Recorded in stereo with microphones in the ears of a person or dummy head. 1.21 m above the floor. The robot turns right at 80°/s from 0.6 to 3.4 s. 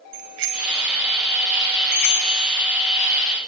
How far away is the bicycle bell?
About 4.5 m.